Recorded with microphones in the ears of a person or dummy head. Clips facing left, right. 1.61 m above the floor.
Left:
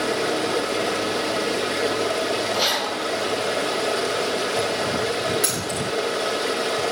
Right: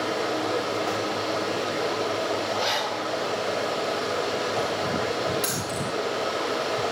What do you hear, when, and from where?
0.0 s running water: 35° left (ahead or behind), 1.3 m
2.5 s a zipper: 60° left (ahead or behind), 4 m
5.4 s keys jangling: 20° left (ahead or behind), 2 m